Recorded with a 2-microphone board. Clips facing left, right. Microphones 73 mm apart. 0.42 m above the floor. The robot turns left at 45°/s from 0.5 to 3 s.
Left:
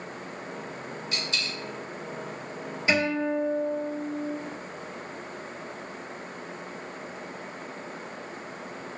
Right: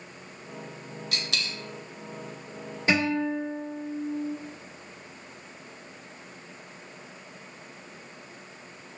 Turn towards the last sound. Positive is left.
turn(degrees=-35)  # may be behind; listen again after turning